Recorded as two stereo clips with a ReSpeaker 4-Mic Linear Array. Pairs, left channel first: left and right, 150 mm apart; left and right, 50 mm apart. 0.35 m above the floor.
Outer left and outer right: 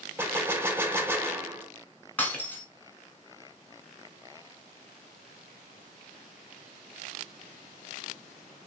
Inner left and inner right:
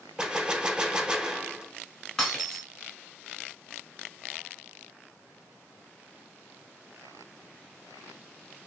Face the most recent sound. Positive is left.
turn(degrees=10)  # may be behind; listen again after turning